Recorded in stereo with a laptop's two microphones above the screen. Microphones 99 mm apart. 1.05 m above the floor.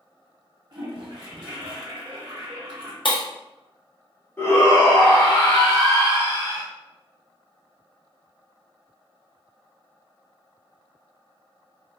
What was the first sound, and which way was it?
A toilet flushing, 50° right (ahead or behind).